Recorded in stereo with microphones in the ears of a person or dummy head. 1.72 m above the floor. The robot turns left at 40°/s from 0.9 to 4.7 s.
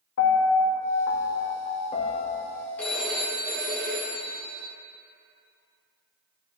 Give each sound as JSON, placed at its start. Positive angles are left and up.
{"t": 0.2, "sound": "a piano", "azimuth_deg": 80, "distance_m": 0.8}
{"t": 2.8, "sound": "a phone ringing", "azimuth_deg": 10, "distance_m": 1.3}